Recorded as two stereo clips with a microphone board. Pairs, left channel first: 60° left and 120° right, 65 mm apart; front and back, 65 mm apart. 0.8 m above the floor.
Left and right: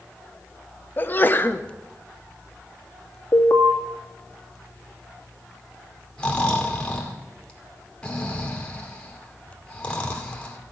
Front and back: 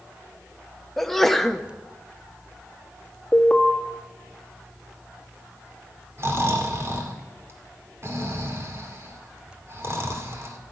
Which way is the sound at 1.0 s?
85° left.